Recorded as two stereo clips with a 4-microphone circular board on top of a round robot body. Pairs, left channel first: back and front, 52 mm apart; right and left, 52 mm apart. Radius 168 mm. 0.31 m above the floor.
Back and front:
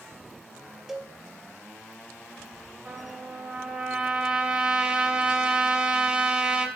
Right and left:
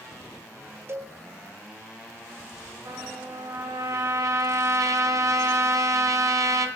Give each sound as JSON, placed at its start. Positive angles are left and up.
{"t": 0.9, "sound": "a cowbell", "azimuth_deg": 85, "distance_m": 1.4}
{"t": 2.9, "sound": "a trumpet", "azimuth_deg": 75, "distance_m": 1.1}